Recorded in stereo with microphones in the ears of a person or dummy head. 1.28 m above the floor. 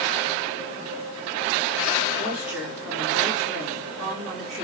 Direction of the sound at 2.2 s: 5° right (ahead or behind).